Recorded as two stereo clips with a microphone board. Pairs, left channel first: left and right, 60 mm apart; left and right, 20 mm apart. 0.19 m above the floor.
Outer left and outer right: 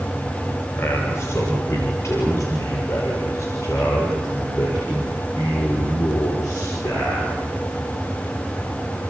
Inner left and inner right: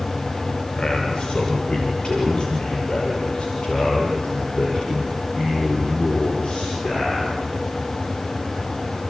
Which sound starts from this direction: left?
A man speaking, at 0.8 s.